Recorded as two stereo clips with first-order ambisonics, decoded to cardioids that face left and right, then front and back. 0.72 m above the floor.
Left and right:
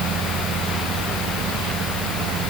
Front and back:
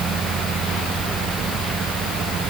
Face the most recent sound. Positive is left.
No sound to turn to.